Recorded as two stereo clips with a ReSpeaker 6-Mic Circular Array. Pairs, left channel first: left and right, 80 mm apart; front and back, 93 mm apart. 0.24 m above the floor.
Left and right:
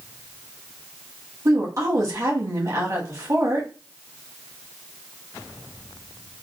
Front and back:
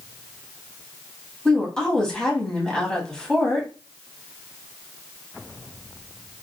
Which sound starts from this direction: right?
A woman speaking, at 1.4 s.